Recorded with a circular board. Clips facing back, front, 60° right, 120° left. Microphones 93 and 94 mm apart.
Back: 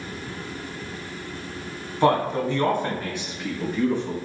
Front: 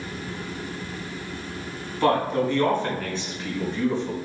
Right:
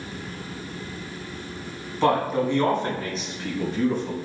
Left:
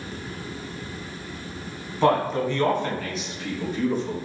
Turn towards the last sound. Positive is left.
turn(degrees=-100)